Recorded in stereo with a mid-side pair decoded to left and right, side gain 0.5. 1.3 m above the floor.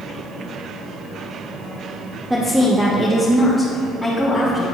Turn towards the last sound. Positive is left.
turn(degrees=10)